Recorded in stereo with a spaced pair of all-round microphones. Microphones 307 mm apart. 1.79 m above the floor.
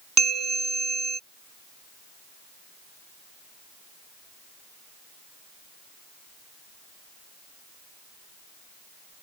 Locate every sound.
0.2 s a bell: 60° right (ahead or behind)